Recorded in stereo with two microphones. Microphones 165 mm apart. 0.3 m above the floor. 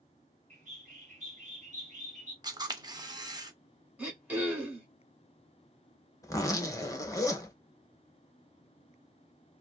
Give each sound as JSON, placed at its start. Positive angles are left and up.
{"t": 0.5, "sound": "a bird", "side_deg": -45, "distance_m": 1.7}
{"t": 2.4, "sound": "a camera shutter", "side_deg": -25, "distance_m": 0.7}
{"t": 4.0, "sound": "throat clearing", "side_deg": -10, "distance_m": 1.4}
{"t": 6.2, "sound": "a zipper", "side_deg": 20, "distance_m": 0.8}